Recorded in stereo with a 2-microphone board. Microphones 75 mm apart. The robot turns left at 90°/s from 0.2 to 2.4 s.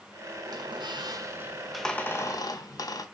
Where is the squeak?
65° right, 0.6 m; by 3.0 s 120° left, 0.6 m.